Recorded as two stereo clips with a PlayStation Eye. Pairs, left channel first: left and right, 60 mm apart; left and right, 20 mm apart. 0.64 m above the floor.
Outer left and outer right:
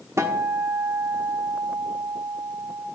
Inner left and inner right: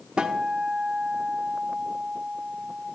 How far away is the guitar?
About 1.4 m.